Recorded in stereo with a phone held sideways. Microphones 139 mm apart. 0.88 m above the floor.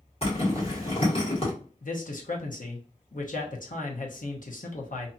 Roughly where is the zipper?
Left.